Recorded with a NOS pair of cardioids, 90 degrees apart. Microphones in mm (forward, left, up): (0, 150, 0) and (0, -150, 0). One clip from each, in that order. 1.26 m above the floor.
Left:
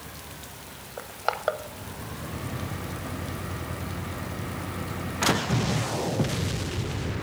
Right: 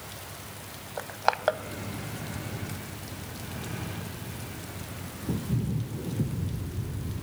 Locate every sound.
1.0 s crushing: 20° right, 0.6 m